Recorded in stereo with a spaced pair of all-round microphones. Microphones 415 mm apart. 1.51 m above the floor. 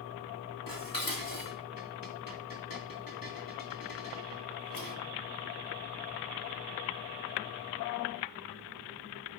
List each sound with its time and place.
0.7 s dishes clattering: 50° left (ahead or behind), 2.0 m